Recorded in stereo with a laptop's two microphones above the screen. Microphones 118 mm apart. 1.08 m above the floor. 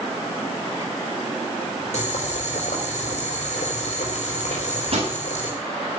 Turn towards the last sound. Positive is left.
turn(degrees=-55)  # may be behind; listen again after turning